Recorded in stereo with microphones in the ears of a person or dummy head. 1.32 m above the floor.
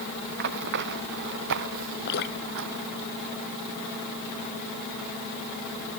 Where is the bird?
No bird in this recording.